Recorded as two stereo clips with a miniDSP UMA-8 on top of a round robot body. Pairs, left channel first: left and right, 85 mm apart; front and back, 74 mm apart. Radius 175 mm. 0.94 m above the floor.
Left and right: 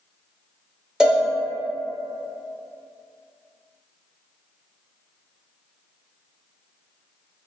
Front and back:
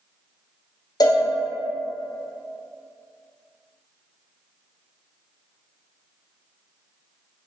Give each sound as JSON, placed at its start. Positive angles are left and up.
{"t": 1.0, "sound": "a cowbell", "azimuth_deg": -10, "distance_m": 0.9}